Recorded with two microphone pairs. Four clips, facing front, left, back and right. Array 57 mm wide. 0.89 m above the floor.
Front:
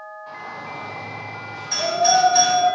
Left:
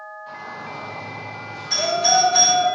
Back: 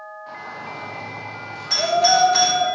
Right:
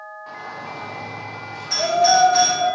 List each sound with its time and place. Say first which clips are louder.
0.3 s a shout: right 1 dB, even; 110° right, 2.5 m
1.7 s a doorbell: right 3 dB, back 1 dB; 155° right, 3 m